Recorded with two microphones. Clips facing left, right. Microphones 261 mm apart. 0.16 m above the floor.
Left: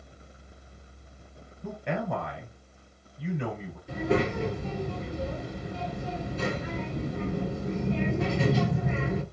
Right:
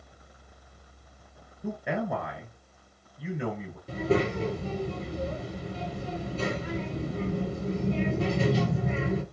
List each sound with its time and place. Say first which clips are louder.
1.6 s a man speaking: right 1 dB; 5° right (ahead or behind), 2.5 m
3.9 s a child speaking: even; 40° right (ahead or behind), 2.5 m